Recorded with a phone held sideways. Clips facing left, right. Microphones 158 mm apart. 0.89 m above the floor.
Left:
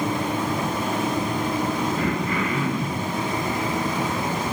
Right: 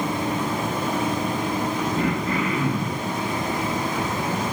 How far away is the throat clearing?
About 0.9 m.